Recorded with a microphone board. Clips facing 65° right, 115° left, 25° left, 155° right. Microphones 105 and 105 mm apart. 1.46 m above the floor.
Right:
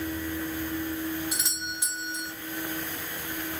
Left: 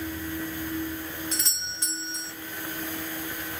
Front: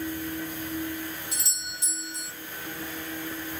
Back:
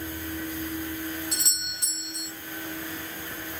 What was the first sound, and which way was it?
A doorbell, 145° right.